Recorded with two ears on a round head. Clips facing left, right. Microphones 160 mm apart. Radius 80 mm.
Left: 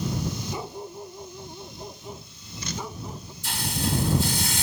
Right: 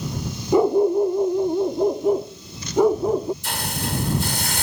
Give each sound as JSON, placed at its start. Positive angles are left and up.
{"t": 0.5, "sound": "a dog barking", "side_deg": -50}
{"t": 3.4, "sound": "a hiss", "side_deg": -50}